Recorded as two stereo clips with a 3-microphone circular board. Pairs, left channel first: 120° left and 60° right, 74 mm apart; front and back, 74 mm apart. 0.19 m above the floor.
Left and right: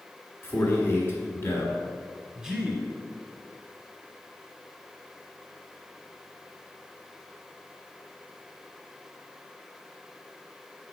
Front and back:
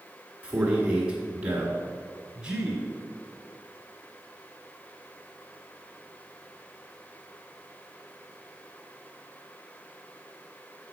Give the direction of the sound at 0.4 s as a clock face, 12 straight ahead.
8 o'clock.